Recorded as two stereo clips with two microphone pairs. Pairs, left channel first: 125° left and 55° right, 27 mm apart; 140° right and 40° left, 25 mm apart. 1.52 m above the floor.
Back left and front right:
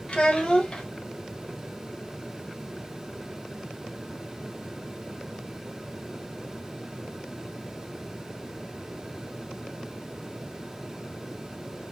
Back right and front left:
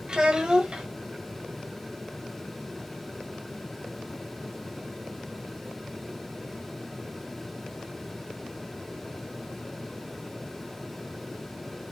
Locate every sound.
0.1 s a child speaking: 85° left, 1.1 m